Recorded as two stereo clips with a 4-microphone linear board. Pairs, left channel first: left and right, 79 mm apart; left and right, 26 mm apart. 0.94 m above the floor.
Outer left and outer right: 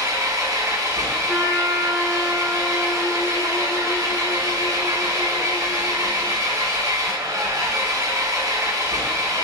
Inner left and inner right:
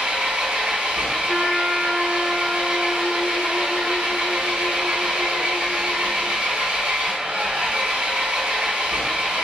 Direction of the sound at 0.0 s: 40° right (ahead or behind).